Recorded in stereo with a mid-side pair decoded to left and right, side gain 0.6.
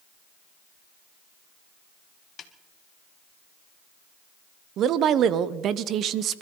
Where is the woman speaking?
55° right, 1.0 m.